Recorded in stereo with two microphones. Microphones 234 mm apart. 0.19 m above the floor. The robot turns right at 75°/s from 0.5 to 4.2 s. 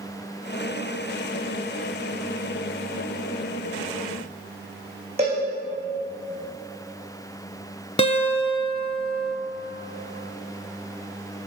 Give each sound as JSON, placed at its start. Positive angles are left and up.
{"t": 5.2, "sound": "a cowbell", "side_deg": -25, "distance_m": 3.0}
{"t": 8.0, "sound": "a guitar", "side_deg": 25, "distance_m": 0.7}